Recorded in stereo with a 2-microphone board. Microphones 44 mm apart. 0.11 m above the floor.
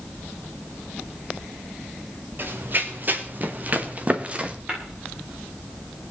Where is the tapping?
30° right (ahead or behind), 9.5 m.